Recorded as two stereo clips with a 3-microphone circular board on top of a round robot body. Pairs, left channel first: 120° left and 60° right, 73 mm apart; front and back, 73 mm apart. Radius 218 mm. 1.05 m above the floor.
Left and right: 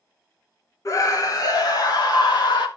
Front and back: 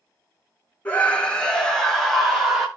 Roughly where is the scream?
Left.